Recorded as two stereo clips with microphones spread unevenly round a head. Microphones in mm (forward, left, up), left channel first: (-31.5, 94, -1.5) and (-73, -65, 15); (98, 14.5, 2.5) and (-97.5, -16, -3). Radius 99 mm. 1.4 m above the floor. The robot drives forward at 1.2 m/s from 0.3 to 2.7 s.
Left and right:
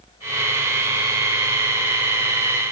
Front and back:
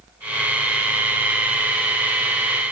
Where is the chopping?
No chopping in this recording.